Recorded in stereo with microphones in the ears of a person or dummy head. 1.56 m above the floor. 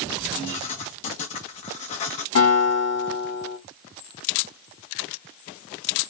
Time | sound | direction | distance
0.5 | writing | 30° left (ahead or behind) | 0.8 m
2.4 | a guitar | 85° left | 3.5 m